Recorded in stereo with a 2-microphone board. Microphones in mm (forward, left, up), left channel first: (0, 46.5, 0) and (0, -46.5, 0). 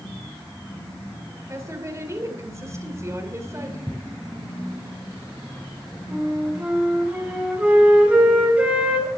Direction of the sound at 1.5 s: 35° right (ahead or behind).